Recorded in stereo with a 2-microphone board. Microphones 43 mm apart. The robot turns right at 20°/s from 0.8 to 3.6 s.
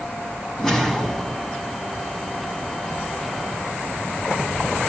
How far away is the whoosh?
About 1.2 m.